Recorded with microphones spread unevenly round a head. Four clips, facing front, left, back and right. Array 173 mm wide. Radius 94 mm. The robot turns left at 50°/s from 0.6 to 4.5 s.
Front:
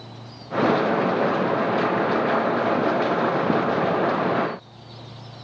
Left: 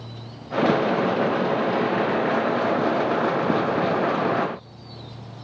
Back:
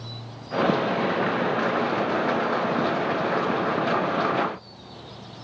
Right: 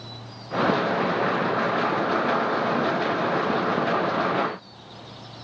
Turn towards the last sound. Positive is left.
No sound to turn to.